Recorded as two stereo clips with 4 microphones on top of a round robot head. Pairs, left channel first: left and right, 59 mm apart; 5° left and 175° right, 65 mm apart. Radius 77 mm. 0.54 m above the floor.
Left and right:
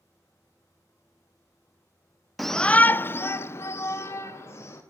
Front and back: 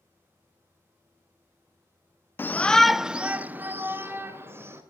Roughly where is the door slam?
I don't hear a door slam.